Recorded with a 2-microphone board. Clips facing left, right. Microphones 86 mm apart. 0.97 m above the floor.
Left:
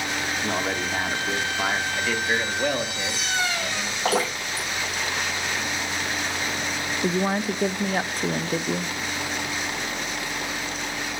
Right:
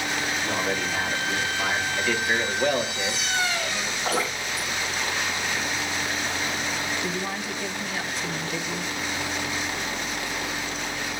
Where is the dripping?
85° left, 9 m.